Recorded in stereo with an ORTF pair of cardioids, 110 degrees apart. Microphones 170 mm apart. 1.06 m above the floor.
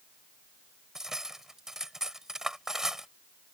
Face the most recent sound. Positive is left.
turn(degrees=-5)